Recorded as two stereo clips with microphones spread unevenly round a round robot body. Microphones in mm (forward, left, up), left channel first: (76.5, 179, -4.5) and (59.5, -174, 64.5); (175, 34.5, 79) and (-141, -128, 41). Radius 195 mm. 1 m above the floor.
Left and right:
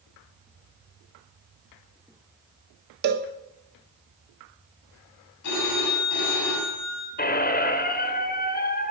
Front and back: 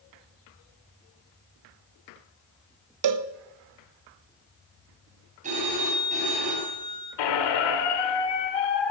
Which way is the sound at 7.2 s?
20° left.